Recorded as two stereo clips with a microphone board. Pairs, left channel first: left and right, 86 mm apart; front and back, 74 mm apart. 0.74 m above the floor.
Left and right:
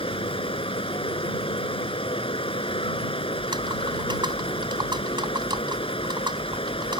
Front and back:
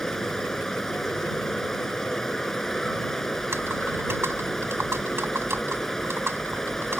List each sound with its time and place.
0.0 s running water: 85° left
3.4 s typing on a keyboard: 120° right